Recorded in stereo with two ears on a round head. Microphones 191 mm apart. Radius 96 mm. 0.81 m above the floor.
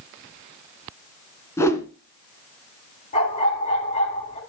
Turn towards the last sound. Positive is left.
turn(degrees=35)  # may be behind; listen again after turning